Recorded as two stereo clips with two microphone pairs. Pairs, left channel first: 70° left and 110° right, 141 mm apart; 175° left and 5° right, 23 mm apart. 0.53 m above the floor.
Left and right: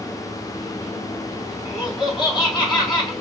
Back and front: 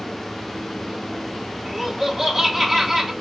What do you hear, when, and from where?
1.6 s laughter: 70° left, 1.3 m